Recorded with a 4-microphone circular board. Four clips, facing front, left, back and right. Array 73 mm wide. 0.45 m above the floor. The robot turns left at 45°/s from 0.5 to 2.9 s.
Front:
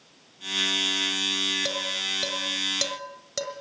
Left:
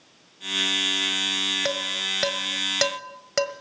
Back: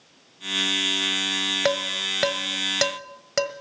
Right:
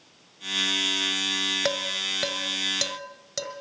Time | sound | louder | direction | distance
1.6 | dishes clattering | right 1 dB, back 7 dB | 170° right | 1.3 m